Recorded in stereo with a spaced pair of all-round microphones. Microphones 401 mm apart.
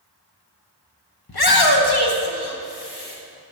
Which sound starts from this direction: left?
A shout, at 1.3 s.